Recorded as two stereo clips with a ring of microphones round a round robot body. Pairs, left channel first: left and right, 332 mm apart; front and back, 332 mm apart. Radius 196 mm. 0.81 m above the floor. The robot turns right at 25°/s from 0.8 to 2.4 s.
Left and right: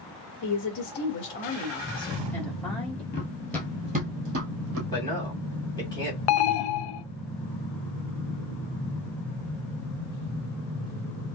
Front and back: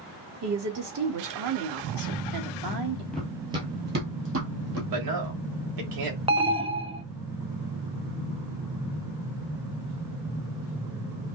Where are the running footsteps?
85° left, 0.9 m; by 4.8 s 130° right, 1.5 m.